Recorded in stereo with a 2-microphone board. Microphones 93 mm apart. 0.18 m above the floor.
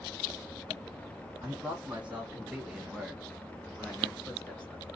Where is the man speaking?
15° right (ahead or behind), 1.4 m; by 4.8 s 10° left (ahead or behind), 1.8 m.